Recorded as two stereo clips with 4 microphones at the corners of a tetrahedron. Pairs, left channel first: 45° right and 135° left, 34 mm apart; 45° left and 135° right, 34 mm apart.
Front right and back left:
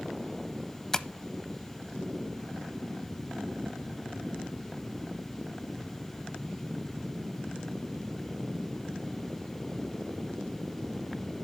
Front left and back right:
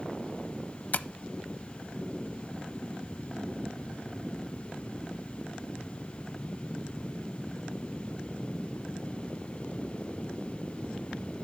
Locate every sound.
0.9 s tapping: 30° left, 0.5 m